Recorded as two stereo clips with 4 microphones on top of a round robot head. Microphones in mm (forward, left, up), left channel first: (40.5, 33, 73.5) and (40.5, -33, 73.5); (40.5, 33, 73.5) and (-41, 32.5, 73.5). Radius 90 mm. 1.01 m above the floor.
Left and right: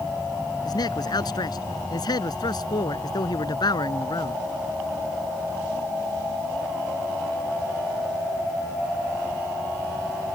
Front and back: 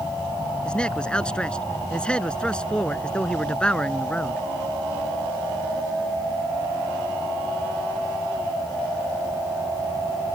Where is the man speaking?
80° left.